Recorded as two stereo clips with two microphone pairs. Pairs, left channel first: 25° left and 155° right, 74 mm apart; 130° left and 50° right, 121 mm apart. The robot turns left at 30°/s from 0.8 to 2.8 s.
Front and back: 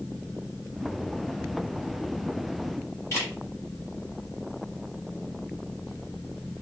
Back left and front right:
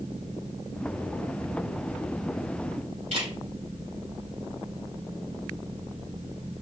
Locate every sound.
3.1 s a camera shutter: 30° right, 3.5 m